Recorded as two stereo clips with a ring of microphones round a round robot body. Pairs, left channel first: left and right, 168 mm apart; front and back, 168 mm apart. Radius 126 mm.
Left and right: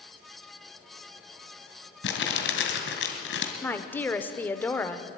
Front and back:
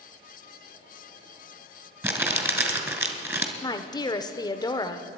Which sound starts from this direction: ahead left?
A woman speaking, at 3.6 s.